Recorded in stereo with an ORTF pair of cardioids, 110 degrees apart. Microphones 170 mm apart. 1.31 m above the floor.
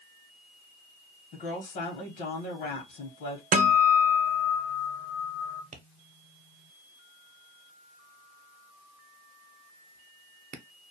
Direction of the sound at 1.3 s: 70° left.